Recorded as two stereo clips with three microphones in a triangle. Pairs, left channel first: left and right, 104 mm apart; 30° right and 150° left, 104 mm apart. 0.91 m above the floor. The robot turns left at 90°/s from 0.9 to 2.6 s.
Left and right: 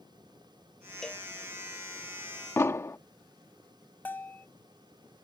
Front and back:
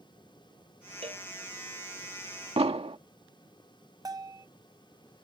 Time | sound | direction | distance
1.0 | a cowbell | 175° left | ?
2.6 | an explosion | 155° left | ?
4.0 | a bell | 150° left | ?